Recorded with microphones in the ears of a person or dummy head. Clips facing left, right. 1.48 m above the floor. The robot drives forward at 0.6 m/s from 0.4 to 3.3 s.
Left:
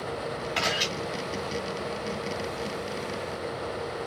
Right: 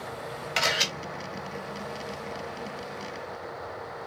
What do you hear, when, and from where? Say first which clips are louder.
0.6 s a camera shutter: right 3 dB; 30° right (ahead or behind), 3 m; by 0.9 s 35° right (ahead or behind), 3 m